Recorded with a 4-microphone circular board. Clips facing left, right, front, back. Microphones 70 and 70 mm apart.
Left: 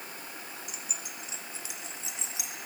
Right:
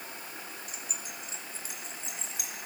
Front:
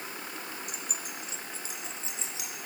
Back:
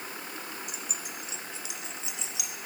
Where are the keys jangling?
40° right, 3.5 m; by 2.5 s 55° right, 4.5 m.